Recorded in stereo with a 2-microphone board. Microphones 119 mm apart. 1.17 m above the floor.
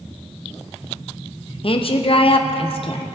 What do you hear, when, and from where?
1.6 s a woman speaking: 50° left (ahead or behind), 0.6 m